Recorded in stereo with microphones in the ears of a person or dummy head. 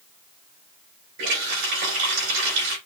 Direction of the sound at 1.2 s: 65° right (ahead or behind).